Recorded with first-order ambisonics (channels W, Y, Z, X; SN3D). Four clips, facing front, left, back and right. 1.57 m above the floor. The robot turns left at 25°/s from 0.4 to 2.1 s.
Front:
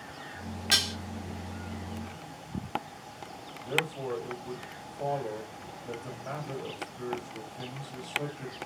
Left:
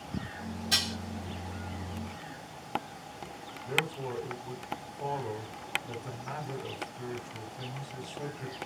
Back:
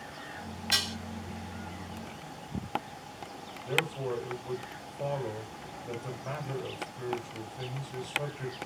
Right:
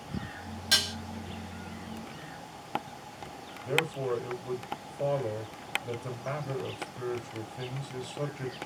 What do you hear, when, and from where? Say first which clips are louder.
0.7 s dishes clattering: right 3 dB, front 3 dB; 45° right, 2 m; by 0.9 s 50° right, 2 m
3.6 s a man speaking: right 3 dB, even; 95° right, 2.5 m